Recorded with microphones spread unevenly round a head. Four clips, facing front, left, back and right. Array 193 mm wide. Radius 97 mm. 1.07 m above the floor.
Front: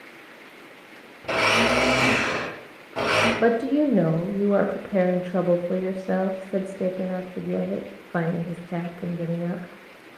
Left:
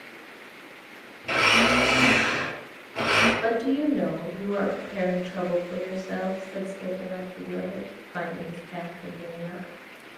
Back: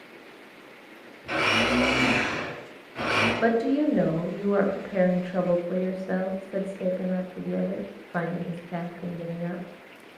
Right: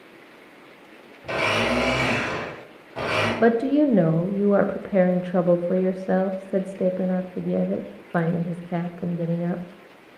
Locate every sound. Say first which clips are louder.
1.2 s a blender: left 1 dB, front 4 dB; 10° right, 3.5 m
3.4 s a woman speaking: right 6 dB, front 1 dB; 65° right, 0.8 m